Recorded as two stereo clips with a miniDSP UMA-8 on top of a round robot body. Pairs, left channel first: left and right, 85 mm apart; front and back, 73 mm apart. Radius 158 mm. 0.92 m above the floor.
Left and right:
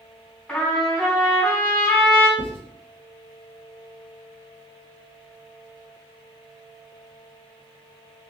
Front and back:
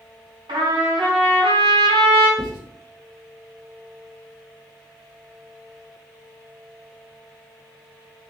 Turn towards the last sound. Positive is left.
turn(degrees=165)